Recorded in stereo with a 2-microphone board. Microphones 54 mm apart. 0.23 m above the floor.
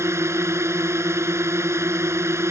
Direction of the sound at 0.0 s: 60° right (ahead or behind).